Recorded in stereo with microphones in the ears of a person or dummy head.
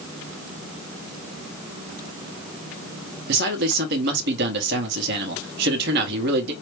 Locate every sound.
3.3 s a man speaking: 60° right (ahead or behind), 1.0 m